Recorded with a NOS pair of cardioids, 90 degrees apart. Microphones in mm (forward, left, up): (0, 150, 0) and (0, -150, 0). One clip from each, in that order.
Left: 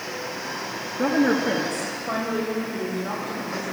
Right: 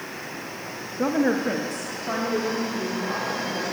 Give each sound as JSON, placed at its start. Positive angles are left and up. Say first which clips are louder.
{"t": 1.0, "sound": "a woman speaking", "louder": "left 2 dB", "azimuth_deg": 0, "distance_m": 1.0}